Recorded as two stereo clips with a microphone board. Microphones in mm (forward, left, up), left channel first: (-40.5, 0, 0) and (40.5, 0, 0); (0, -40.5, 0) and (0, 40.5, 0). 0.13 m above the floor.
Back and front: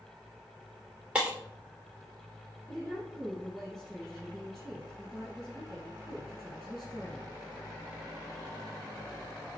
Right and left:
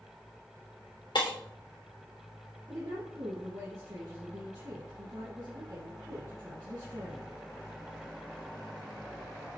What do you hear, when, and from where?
1.1 s breaking glass: 75° right, 2.5 m
2.7 s a woman speaking: 90° left, 2.5 m